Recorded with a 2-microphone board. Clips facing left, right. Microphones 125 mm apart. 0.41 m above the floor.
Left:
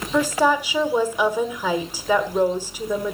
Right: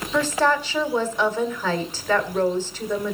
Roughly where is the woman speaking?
Centre.